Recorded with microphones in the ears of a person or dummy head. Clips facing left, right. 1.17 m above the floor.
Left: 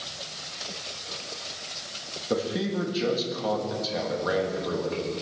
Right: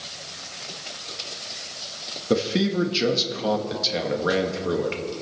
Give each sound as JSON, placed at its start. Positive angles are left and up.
{"t": 2.3, "sound": "a man speaking", "side_deg": -40, "distance_m": 1.4}